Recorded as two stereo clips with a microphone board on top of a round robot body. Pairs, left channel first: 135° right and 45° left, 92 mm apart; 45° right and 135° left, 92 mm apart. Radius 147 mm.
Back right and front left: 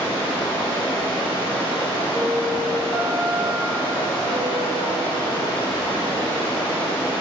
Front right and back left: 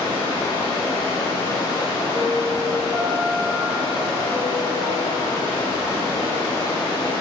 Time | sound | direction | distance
0.0 | running water | 95° right | 2.5 m
2.1 | a piano | 160° left | 1.6 m